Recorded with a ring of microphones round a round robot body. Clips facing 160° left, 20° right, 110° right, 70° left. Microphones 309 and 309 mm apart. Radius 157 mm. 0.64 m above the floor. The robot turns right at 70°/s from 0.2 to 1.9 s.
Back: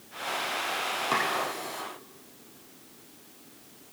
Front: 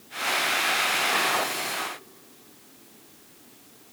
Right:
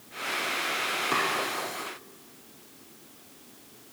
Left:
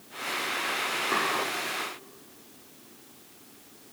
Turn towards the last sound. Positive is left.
turn(degrees=-135)